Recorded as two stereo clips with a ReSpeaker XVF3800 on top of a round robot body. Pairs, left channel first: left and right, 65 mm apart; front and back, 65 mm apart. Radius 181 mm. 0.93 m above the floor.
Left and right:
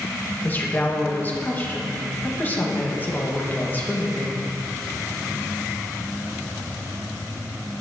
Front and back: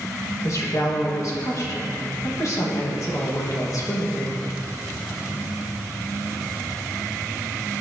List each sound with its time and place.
0.4 s a woman speaking: 30° left, 1.8 m